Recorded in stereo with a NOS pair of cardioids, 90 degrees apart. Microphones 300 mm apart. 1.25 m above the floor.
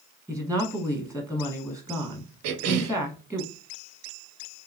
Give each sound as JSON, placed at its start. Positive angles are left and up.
{"t": 0.3, "sound": "a woman speaking", "azimuth_deg": 5, "distance_m": 0.9}
{"t": 2.4, "sound": "a cough", "azimuth_deg": -60, "distance_m": 0.5}